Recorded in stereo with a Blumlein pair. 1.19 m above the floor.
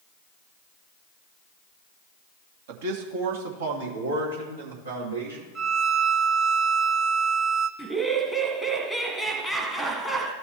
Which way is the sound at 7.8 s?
5° right.